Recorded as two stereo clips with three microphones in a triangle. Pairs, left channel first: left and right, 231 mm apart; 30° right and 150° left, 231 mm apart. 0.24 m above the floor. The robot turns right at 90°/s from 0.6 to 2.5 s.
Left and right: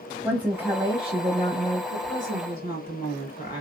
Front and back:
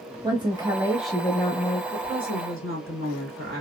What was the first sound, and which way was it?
A woman speaking, 165° right.